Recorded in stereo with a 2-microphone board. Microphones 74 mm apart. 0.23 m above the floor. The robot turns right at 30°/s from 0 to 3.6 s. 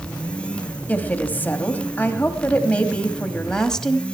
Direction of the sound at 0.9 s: 25° left (ahead or behind).